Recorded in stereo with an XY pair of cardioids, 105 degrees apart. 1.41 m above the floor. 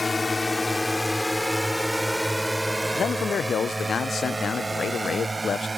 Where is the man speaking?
45° left.